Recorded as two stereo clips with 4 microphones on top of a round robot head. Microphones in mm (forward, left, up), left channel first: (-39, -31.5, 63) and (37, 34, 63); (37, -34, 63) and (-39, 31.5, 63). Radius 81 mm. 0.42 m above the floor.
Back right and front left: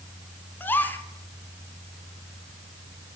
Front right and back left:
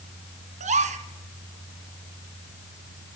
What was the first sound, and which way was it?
A gasp, 150° left.